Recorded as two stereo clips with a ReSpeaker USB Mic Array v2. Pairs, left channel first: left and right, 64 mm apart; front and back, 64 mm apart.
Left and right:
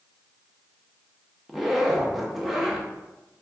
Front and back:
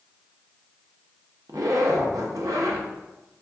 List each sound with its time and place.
1.5 s a zipper: 175° right, 0.7 m